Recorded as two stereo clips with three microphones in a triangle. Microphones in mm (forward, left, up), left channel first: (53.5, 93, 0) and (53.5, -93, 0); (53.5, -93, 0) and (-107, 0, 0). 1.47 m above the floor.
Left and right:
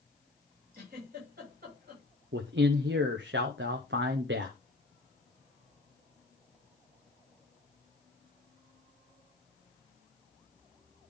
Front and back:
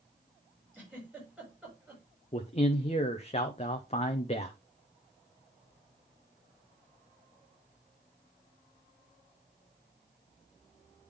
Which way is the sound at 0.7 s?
125° right.